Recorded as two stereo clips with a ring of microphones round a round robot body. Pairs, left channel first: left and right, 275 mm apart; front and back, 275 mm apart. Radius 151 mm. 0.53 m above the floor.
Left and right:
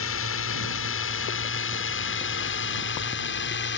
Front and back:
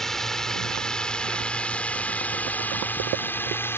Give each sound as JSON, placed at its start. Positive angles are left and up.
{"t": 0.0, "sound": "a drone", "azimuth_deg": 90}